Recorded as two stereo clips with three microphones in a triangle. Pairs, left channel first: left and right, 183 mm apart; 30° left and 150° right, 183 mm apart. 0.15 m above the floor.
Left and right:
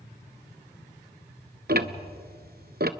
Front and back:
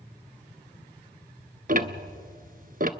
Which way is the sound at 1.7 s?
115° right.